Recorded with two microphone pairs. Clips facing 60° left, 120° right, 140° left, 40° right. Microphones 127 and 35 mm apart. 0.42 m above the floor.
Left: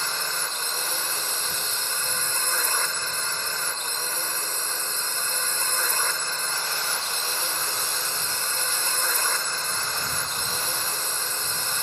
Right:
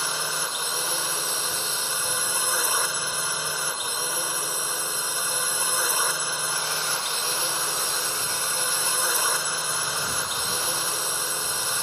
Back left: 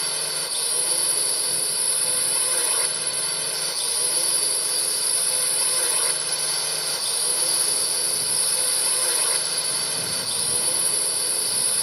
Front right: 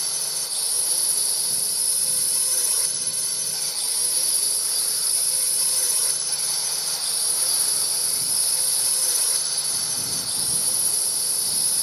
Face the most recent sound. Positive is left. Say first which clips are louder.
# right 1 dB, back left 3 dB
turn(degrees=165)